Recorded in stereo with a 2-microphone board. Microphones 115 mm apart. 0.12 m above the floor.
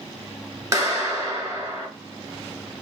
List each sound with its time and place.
0.7 s a clap: 25° right (ahead or behind), 1.2 m